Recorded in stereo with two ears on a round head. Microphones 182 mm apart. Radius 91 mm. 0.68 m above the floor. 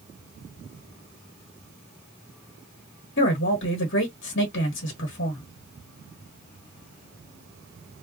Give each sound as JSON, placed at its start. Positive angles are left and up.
{"t": 3.2, "sound": "a man speaking", "side_deg": 50, "distance_m": 1.1}